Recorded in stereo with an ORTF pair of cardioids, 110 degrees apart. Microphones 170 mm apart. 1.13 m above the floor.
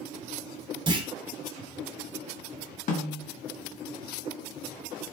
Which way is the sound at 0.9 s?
30° right.